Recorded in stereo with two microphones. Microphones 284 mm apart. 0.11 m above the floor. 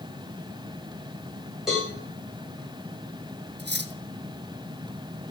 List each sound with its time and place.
1.7 s a cowbell: centre (ahead or behind), 8 m
3.6 s cutlery clinking: 40° right (ahead or behind), 0.9 m